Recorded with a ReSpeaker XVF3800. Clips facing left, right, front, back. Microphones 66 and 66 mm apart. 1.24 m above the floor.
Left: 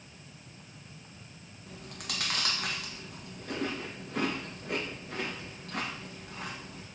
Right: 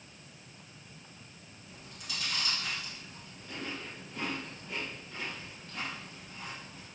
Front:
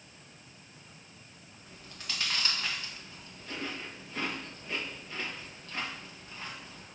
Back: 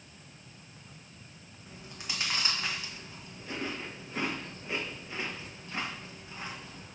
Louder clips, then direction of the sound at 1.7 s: Left 4 dB, back 1 dB; 110° left.